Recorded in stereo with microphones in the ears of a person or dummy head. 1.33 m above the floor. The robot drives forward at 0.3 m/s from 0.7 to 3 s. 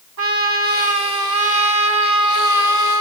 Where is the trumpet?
85° right, 5 m; by 3.0 s 80° right, 5 m.